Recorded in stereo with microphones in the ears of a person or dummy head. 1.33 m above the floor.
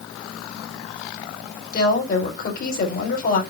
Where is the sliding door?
I don't hear a sliding door.